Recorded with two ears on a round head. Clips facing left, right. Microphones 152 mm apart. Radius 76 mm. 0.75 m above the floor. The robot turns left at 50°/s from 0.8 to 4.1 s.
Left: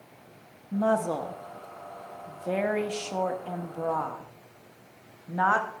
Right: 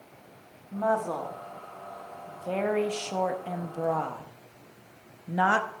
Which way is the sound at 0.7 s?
30° left (ahead or behind).